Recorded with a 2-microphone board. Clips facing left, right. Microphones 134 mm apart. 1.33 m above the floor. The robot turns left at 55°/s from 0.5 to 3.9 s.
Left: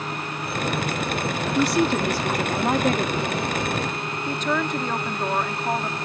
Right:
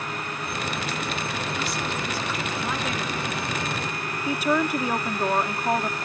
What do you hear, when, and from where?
1.6 s a woman speaking: 120° left; by 6.0 s 10° right